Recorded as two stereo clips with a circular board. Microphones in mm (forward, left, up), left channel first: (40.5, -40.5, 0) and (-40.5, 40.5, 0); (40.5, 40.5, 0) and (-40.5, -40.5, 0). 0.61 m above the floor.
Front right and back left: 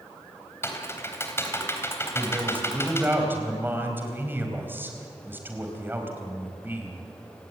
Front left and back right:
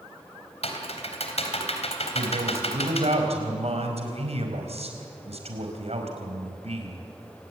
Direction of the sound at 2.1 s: 155° right.